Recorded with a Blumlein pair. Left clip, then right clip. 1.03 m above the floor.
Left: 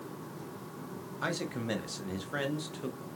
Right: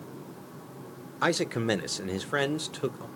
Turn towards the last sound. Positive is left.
turn(degrees=-65)